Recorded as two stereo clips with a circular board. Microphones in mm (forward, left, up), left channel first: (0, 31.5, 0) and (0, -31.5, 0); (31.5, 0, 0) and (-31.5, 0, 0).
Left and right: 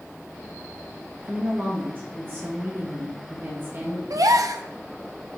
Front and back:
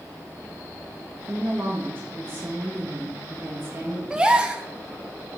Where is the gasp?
105° right, 0.6 m.